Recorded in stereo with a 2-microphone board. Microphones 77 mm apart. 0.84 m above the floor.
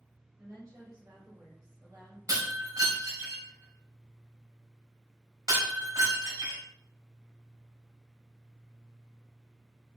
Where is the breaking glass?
55° right (ahead or behind), 1.7 m.